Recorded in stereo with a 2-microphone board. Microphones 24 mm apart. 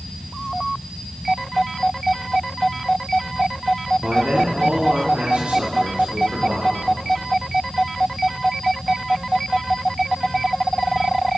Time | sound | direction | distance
4.0 | a man speaking | 60° right (ahead or behind) | 1.9 m